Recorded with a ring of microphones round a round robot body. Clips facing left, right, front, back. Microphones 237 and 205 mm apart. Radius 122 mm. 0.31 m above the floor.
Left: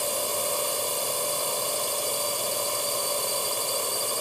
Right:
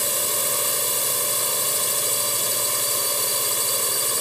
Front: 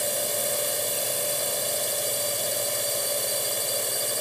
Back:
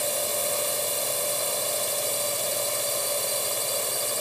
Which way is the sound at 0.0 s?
75° right.